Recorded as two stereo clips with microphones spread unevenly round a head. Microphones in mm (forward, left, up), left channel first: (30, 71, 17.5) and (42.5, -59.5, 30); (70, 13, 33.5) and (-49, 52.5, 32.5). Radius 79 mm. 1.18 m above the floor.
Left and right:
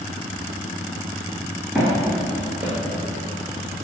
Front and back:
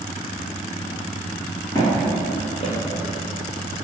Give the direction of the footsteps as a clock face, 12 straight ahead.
1 o'clock.